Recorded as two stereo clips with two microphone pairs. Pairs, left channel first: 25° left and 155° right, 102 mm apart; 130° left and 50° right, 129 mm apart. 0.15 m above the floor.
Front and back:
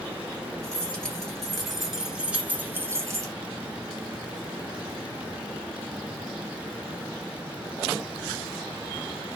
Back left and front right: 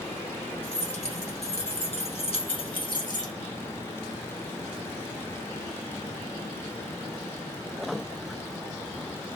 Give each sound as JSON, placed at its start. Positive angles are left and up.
{"t": 0.6, "sound": "keys jangling", "azimuth_deg": 105, "distance_m": 2.0}